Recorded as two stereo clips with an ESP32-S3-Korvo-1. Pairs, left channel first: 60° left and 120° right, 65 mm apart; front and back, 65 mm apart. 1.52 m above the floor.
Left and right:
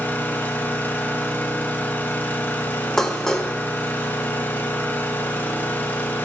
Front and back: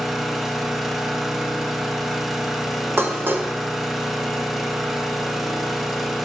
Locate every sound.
0.0 s an engine running: 95° left, 0.8 m
3.0 s dishes clattering: 140° left, 0.7 m